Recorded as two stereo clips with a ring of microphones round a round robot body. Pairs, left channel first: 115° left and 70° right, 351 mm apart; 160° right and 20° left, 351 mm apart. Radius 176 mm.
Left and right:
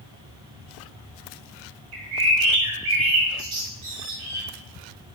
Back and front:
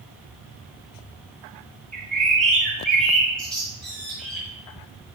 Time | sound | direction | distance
1.9 | a bird | 70° right | 1.6 m